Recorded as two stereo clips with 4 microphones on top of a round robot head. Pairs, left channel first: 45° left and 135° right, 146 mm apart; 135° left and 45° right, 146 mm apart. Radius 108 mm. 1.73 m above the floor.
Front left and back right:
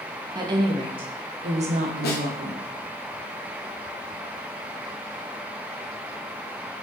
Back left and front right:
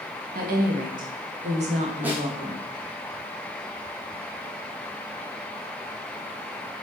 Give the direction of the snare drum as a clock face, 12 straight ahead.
11 o'clock.